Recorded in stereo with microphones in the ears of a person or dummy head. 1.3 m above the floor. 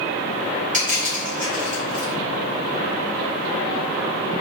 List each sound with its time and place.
0.7 s crushing: 40° right (ahead or behind), 1.1 m